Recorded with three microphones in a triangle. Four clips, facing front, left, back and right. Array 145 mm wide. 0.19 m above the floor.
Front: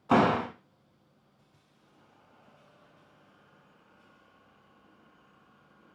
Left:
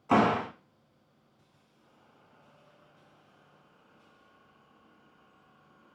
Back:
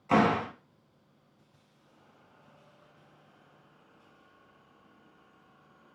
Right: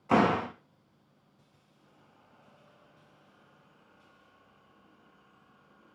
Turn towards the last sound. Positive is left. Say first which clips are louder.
# even, front 1 dB
turn(degrees=25)